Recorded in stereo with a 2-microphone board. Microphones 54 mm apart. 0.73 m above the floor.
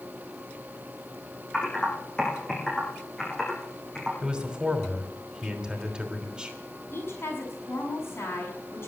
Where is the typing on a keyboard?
10° left (ahead or behind), 6 m.